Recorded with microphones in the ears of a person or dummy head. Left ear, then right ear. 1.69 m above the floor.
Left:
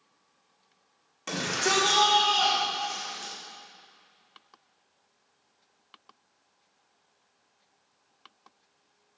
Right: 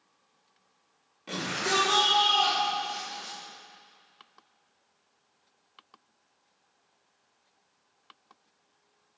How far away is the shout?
About 6 m.